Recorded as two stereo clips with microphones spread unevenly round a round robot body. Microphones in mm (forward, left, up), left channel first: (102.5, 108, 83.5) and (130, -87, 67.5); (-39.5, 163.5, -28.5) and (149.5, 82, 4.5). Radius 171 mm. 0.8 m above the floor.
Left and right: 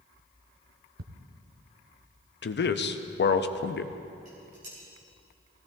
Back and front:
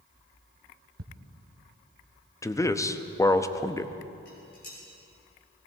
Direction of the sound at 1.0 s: 50° right.